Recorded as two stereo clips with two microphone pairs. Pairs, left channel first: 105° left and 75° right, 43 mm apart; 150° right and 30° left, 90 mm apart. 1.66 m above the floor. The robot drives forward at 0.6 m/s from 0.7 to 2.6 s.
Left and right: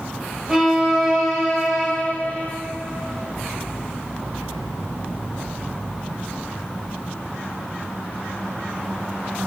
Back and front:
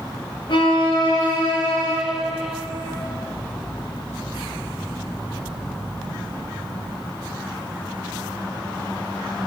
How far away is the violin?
About 1.4 m.